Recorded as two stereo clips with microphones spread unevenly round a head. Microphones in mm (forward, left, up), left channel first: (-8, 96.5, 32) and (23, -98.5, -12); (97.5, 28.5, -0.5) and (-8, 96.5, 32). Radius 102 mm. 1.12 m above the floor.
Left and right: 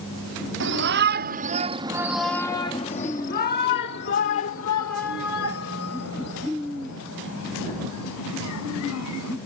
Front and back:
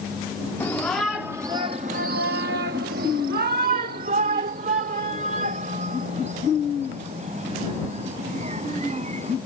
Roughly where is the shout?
Behind right.